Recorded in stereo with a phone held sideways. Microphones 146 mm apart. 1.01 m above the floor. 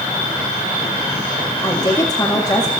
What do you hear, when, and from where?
1.6 s a woman speaking: 25° left (ahead or behind), 1.8 m